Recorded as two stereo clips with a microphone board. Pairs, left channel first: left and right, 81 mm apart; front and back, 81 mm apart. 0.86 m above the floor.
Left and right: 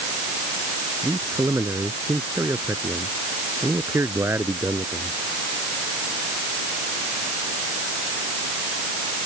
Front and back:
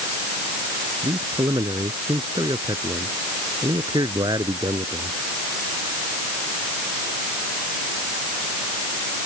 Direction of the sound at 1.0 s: 150° right.